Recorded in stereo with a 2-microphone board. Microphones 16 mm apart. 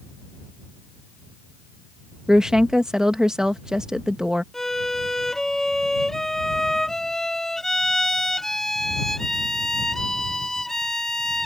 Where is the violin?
20° left (ahead or behind).